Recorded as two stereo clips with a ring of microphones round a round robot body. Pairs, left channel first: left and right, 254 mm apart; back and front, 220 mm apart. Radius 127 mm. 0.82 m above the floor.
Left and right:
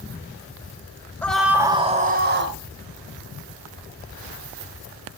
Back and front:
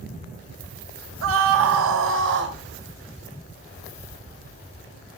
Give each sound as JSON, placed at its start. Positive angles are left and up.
{"t": 1.2, "sound": "a scream", "azimuth_deg": 5, "distance_m": 2.0}